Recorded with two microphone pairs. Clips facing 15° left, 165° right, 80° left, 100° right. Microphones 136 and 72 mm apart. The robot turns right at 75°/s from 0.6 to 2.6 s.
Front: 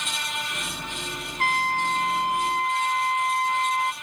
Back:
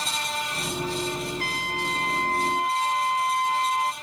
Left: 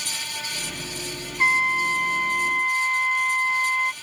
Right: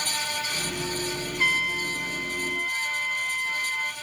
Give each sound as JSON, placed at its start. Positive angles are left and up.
{"t": 1.4, "sound": "a trumpet", "azimuth_deg": 20}